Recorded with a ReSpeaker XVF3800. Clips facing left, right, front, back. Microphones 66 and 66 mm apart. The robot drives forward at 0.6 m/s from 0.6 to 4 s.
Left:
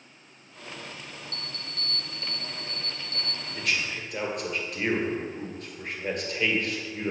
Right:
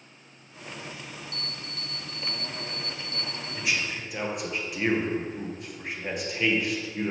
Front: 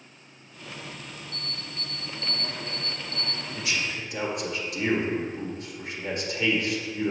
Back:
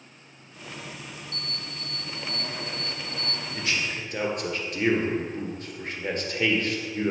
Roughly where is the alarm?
Left.